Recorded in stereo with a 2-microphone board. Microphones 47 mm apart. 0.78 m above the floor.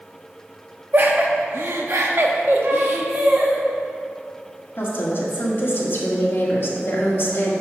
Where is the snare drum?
I don't hear a snare drum.